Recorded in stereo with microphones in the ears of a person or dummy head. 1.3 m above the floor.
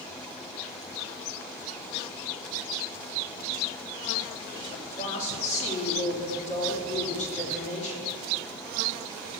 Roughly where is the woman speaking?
Left.